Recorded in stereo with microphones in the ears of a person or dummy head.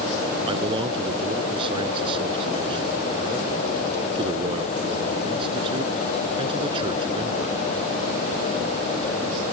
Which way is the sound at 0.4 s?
30° right (ahead or behind).